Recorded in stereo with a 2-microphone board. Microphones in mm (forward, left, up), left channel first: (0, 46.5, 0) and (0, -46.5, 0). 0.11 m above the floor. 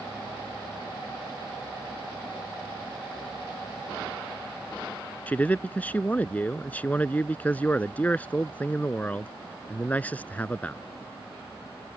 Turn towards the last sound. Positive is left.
turn(degrees=15)  # may be behind; listen again after turning